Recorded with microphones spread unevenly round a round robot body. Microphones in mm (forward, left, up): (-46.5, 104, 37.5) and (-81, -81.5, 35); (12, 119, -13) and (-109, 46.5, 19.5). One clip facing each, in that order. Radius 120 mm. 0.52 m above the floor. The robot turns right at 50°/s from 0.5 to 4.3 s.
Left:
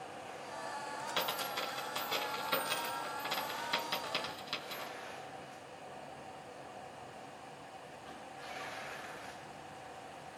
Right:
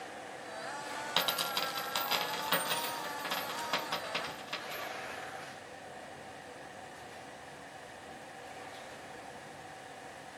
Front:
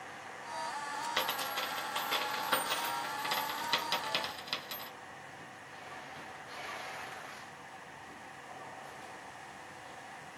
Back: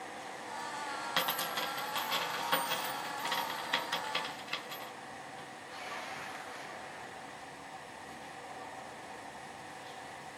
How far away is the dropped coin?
About 1.3 m.